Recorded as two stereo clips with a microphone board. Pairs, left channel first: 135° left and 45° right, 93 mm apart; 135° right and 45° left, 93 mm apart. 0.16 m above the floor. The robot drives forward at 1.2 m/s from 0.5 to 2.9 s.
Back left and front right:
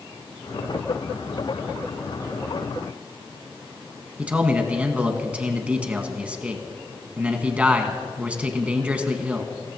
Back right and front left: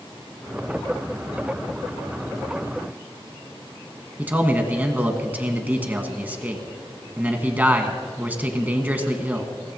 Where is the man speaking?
5° left, 1.4 m.